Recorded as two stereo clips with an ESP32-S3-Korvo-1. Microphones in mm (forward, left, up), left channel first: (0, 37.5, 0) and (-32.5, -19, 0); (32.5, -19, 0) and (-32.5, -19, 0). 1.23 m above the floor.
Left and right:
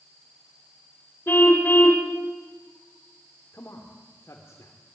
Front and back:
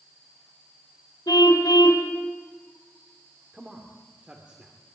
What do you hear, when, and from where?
1.3 s a car horn: 5° left, 3 m
3.5 s a man speaking: 105° left, 3 m